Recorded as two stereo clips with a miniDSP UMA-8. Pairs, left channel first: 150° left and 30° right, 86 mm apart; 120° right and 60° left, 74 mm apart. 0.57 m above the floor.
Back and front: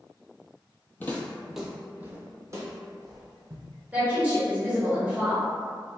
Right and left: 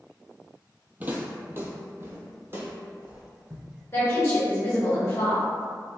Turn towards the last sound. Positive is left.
turn(degrees=-95)